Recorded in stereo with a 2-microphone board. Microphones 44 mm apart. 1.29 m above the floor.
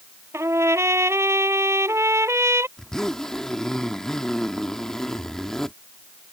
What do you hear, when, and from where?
0.3 s a trumpet: 70° right (ahead or behind)
2.8 s a zipper: 15° left (ahead or behind)